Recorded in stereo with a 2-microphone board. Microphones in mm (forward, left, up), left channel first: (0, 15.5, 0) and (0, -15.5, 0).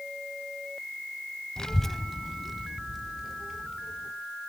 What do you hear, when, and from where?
1.6 s a child speaking: 20° left (ahead or behind), 0.6 m; by 4.1 s 10° right (ahead or behind), 3.5 m